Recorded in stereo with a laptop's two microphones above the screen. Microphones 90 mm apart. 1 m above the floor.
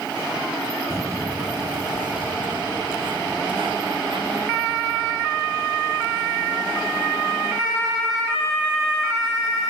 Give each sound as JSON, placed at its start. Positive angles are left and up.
{"t": 0.9, "sound": "footsteps", "side_deg": -30}